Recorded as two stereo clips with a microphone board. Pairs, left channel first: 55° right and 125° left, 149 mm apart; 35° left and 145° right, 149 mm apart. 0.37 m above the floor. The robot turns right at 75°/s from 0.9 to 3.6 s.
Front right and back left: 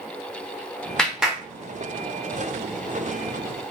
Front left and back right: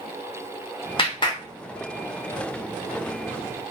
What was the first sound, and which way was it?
A clap, 25° left.